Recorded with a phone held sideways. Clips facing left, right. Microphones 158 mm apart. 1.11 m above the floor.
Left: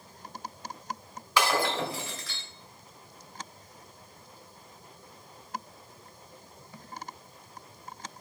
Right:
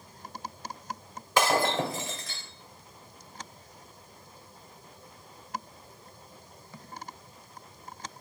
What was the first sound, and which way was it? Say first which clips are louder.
Breaking glass: right 2 dB; 45° right (ahead or behind).